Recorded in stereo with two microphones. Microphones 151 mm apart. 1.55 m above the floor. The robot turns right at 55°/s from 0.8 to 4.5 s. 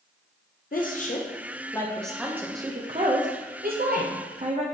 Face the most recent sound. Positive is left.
turn(degrees=-50)  # may be behind; listen again after turning